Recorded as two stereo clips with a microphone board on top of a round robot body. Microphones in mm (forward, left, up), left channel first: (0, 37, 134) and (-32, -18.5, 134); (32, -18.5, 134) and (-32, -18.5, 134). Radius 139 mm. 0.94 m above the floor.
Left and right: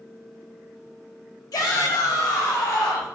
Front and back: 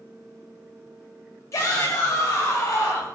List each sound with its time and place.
1.5 s a shout: 40° left, 5.5 m